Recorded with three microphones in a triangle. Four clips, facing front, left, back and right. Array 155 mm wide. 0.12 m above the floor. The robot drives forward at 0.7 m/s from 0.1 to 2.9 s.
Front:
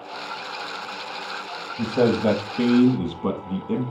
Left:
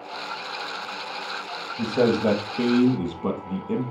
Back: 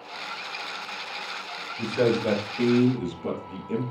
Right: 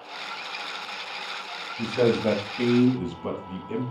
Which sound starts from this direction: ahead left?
A man speaking, at 1.8 s.